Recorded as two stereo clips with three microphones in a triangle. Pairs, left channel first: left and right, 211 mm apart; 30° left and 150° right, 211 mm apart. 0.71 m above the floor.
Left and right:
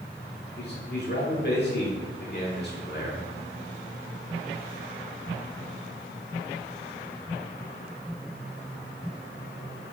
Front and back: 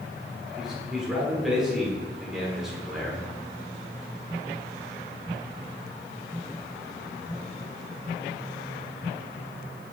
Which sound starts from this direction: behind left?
A man speaking, at 0.6 s.